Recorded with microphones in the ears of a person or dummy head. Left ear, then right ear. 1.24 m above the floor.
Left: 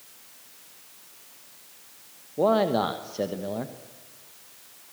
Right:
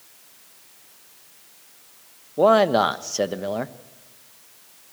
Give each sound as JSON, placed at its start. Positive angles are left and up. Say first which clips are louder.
{"t": 2.4, "sound": "a man speaking", "louder": "right 6 dB", "side_deg": -55, "distance_m": 1.1}